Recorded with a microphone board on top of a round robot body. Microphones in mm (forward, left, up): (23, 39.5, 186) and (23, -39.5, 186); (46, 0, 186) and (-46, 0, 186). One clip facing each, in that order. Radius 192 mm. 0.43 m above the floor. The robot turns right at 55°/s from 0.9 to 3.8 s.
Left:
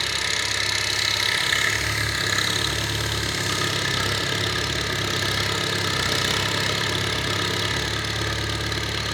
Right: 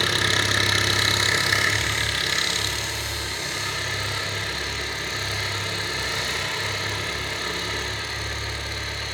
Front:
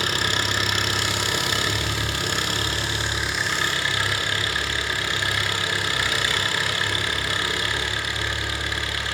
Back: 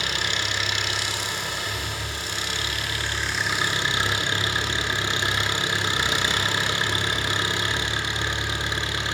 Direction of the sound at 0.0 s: 45° right.